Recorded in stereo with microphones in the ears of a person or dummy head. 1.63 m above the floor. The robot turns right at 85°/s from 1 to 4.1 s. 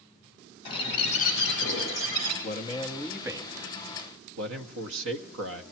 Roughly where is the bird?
Ahead left.